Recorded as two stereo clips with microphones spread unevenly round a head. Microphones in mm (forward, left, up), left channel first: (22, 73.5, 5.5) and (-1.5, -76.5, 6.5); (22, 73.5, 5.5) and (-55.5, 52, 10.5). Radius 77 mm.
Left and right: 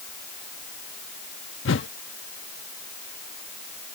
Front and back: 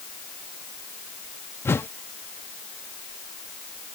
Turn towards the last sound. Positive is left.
turn(degrees=80)